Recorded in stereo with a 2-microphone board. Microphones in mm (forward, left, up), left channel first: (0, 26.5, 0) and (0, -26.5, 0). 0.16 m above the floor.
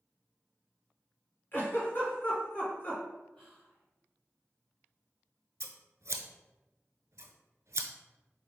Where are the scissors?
65° right (ahead or behind), 0.5 m.